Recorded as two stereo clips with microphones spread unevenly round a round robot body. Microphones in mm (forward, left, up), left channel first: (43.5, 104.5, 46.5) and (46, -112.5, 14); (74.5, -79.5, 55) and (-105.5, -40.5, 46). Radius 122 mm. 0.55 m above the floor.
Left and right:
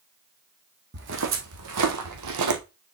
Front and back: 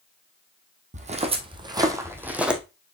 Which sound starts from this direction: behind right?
Footsteps, at 0.9 s.